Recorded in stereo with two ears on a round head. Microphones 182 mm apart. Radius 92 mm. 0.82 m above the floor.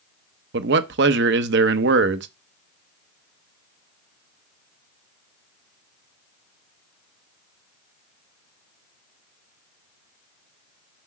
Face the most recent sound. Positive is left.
turn(degrees=-60)  # may be behind; listen again after turning